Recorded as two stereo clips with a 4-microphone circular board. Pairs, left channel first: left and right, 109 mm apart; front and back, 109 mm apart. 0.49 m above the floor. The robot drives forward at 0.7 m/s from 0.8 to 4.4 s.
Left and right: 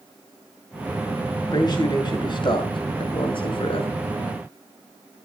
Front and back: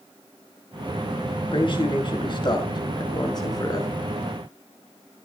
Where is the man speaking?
40° left, 6 m; by 3.9 s 55° left, 5 m.